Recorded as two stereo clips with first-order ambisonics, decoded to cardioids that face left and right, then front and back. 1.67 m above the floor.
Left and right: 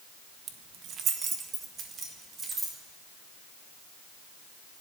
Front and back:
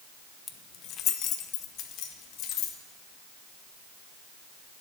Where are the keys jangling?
50° right, 0.9 m; by 2.8 s 25° right, 2.5 m.